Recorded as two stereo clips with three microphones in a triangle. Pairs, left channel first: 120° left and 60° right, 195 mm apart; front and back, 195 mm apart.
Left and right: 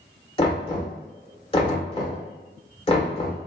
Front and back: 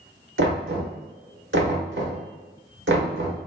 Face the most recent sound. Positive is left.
turn(degrees=180)